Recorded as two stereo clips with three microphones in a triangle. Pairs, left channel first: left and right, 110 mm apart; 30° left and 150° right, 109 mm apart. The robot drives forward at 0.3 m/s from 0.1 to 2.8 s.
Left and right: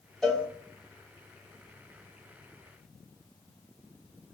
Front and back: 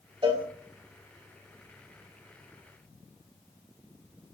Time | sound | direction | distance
0.2 | a cowbell | straight behind | 0.7 m